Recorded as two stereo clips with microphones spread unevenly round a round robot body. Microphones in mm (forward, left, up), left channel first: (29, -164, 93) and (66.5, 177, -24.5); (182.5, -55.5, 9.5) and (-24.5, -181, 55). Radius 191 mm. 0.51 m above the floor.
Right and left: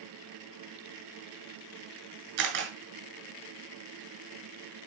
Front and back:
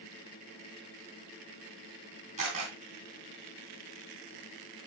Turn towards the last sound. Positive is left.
turn(degrees=140)